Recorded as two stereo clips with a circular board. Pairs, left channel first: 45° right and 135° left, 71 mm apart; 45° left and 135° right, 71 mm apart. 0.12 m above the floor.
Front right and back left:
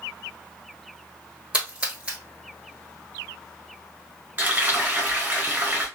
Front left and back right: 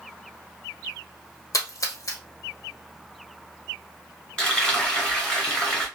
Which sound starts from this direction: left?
Frying, at 4.4 s.